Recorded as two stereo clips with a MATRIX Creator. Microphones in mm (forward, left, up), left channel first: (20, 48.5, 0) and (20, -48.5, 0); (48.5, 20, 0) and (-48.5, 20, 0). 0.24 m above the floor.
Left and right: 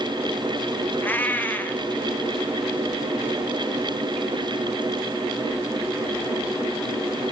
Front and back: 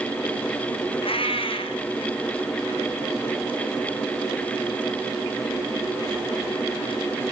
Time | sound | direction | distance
1.0 | a cat meowing | 20° left | 1.9 m